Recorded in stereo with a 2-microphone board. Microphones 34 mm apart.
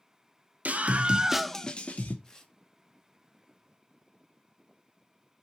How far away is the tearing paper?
About 1.4 m.